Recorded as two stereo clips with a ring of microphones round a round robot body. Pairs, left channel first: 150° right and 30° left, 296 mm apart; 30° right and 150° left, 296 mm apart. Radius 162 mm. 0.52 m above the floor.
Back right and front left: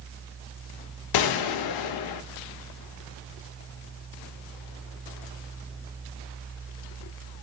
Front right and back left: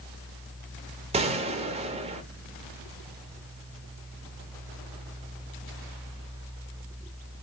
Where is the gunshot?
140° right, 0.6 m.